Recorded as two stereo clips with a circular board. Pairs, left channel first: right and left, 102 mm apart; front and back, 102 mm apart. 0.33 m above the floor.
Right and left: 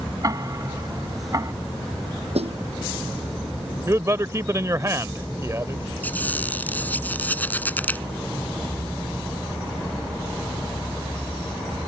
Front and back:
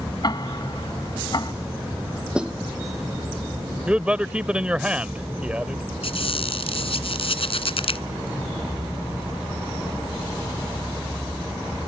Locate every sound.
0.2 s ticking: 40° left
2.4 s a snare drum: 100° left
3.9 s a man speaking: 110° left
6.0 s a squeak: 15° right